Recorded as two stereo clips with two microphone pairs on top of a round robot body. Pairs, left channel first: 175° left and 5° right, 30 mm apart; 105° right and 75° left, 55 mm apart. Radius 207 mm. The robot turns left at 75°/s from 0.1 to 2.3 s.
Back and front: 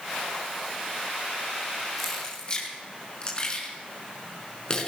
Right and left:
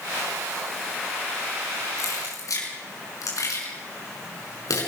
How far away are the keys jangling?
About 5.5 m.